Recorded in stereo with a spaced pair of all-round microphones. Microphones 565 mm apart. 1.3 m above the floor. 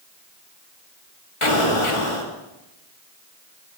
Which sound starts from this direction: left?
An explosion, at 1.4 s.